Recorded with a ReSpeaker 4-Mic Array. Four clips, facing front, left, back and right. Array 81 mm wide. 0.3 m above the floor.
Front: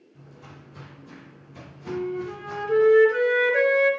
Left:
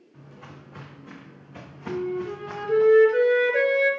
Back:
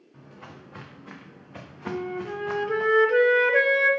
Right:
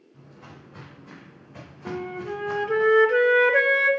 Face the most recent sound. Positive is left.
turn(degrees=-115)